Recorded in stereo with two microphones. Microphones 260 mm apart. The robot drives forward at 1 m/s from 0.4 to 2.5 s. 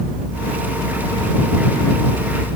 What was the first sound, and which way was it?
Only background noise.